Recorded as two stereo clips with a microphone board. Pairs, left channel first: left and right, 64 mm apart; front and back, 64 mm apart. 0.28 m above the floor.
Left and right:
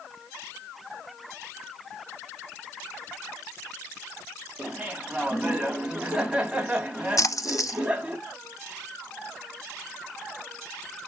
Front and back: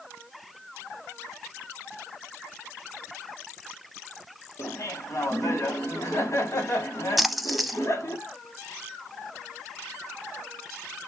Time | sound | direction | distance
4.6 | laughter | 20° right | 1.6 m
7.2 | a splash | 90° left | 0.6 m